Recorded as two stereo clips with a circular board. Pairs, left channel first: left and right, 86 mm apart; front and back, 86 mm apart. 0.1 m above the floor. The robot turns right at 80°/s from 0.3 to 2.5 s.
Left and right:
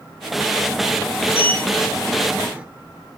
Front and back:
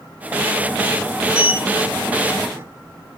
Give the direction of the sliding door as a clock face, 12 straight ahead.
8 o'clock.